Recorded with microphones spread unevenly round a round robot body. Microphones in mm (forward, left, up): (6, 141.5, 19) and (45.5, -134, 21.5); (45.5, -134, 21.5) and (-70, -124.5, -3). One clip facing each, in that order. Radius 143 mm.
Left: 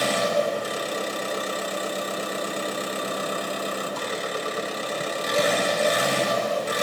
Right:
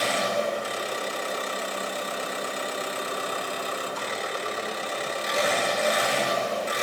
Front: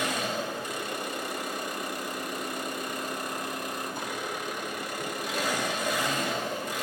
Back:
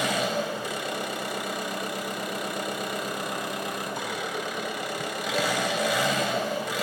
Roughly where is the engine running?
Behind left.